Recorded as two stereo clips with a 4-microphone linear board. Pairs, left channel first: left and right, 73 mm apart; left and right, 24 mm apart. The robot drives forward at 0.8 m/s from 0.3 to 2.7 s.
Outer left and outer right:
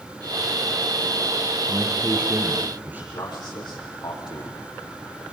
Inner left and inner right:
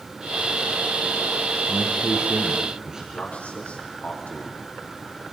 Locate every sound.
1.7 s a man speaking: 30° right (ahead or behind), 3.5 m; by 3.0 s 25° right (ahead or behind), 4 m
3.1 s a man speaking: 80° left, 7.5 m